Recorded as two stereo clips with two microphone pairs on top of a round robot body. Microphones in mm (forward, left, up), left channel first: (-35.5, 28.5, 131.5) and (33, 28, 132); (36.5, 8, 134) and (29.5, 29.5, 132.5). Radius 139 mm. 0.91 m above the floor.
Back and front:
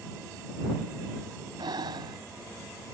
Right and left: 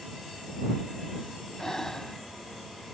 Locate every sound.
1.6 s breathing: straight ahead